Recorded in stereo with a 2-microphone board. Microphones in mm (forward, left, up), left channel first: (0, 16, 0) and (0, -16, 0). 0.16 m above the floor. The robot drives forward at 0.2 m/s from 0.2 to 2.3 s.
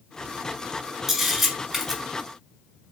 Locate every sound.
1.1 s a camera shutter: 5° right (ahead or behind), 1.6 m